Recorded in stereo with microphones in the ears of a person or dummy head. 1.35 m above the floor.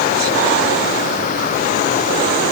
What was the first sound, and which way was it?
Only background noise.